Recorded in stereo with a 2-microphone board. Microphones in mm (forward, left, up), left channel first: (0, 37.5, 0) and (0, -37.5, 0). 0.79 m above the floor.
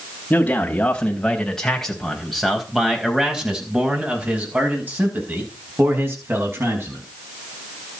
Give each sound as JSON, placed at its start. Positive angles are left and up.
{"t": 0.3, "sound": "a man speaking", "side_deg": 20, "distance_m": 4.5}